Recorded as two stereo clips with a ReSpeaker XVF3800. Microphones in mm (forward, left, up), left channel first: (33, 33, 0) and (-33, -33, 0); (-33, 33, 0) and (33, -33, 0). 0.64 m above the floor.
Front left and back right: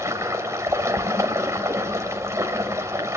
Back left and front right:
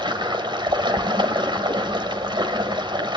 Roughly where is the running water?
Right.